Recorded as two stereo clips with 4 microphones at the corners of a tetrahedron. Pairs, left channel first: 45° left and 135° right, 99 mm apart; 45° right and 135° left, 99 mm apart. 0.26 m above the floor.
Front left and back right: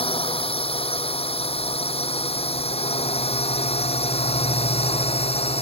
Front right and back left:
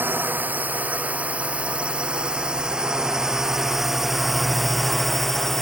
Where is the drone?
65° left; by 5.6 s 45° left.